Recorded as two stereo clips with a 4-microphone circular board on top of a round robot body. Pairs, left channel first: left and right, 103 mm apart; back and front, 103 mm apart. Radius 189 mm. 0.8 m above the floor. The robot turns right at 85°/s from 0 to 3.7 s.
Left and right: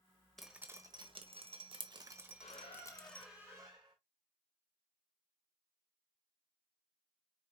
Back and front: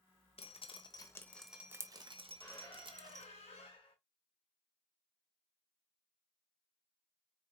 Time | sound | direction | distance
0.4 | dripping | 175° left | 1.1 m
2.4 | a squeak | 105° left | 1.7 m